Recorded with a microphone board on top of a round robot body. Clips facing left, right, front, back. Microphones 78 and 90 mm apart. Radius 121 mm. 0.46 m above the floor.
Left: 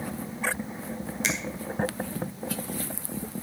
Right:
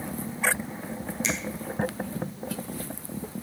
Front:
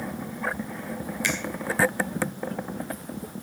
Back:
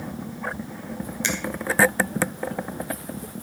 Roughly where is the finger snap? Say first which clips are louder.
Left 1 dB, back 1 dB; behind left.